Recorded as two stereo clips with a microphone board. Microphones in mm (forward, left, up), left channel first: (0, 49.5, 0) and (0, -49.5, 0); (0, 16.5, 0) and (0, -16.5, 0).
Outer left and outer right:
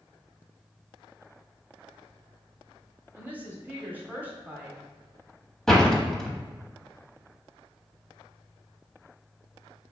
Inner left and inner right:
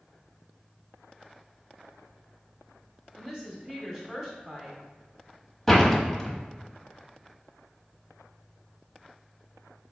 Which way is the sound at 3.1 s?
20° right (ahead or behind).